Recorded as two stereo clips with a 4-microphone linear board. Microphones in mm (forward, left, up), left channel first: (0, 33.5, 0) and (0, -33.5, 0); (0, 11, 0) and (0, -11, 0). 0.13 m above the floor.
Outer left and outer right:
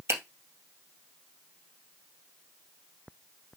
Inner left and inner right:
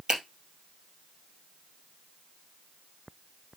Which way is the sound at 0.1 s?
40° right (ahead or behind).